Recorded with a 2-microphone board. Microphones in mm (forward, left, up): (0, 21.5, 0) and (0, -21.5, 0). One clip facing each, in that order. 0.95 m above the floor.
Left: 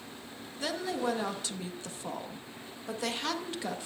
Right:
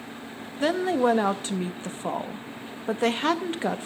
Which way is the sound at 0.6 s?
35° right (ahead or behind).